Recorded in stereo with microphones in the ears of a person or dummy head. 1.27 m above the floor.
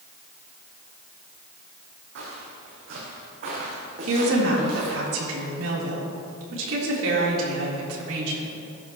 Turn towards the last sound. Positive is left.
turn(degrees=-80)